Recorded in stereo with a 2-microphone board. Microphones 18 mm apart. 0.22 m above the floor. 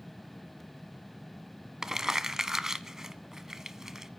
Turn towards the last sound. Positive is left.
turn(degrees=-30)  # may be behind; listen again after turning